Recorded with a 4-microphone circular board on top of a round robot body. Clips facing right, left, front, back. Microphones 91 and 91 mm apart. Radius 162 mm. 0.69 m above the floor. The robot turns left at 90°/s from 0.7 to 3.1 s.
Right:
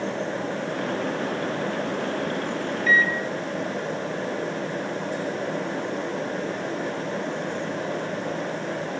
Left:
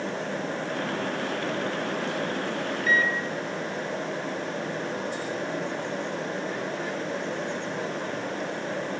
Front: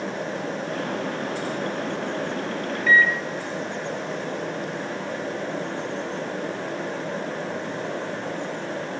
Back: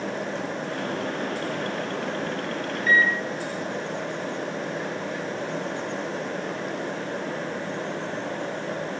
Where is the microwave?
130° left, 0.5 m; by 3.2 s 110° left, 0.5 m.